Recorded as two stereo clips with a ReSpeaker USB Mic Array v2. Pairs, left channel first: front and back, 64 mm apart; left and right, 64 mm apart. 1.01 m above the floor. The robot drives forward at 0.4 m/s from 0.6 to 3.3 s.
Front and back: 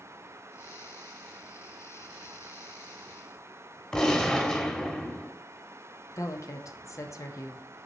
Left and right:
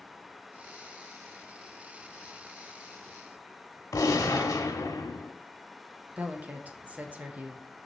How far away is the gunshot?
About 1.1 m.